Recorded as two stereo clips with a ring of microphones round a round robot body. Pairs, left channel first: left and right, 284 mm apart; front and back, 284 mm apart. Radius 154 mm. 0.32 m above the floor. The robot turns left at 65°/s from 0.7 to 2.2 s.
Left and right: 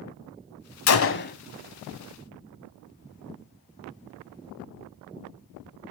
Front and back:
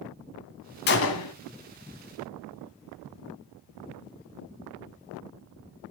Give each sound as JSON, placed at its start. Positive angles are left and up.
{"t": 0.9, "sound": "a gunshot", "azimuth_deg": 60, "distance_m": 1.0}